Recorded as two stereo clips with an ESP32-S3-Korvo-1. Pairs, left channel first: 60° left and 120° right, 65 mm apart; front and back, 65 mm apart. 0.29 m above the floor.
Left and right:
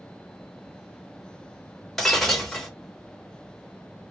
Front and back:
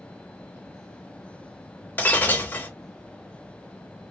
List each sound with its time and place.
2.0 s breaking glass: 20° right, 0.7 m